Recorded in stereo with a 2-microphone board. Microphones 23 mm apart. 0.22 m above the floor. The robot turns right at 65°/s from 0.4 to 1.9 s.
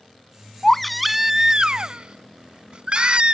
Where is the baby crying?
160° left; by 3.3 s 115° right.